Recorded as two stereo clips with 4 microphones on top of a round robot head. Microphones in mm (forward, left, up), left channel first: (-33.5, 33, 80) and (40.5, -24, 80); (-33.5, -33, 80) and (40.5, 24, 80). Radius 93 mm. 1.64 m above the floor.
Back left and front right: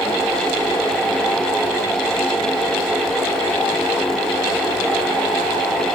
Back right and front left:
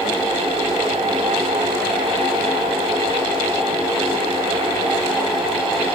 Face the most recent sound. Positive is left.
No sound to turn to.